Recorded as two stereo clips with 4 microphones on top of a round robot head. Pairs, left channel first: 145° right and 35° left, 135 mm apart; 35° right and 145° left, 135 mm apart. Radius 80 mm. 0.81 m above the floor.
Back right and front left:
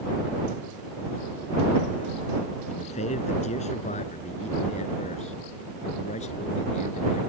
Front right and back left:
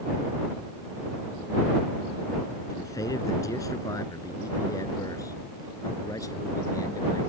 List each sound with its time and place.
2.7 s a man speaking: 100° right